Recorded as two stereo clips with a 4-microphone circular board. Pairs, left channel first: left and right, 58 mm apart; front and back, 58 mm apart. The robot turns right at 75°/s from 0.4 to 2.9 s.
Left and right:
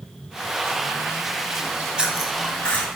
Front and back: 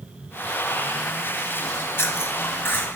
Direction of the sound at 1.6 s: 50° right.